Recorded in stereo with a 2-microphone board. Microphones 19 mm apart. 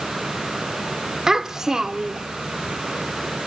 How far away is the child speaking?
About 1.0 m.